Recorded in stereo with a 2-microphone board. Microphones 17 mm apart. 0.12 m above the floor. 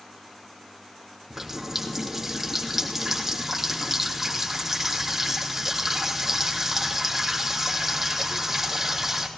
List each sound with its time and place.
1.3 s a running tap: 15° right (ahead or behind), 3 m